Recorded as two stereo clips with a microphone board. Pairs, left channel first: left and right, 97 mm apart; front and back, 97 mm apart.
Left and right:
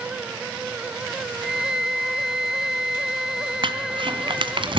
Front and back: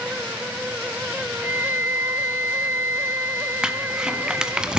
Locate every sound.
1.4 s a flute: 170° right, 1.0 m
3.6 s crumpling: 100° right, 1.9 m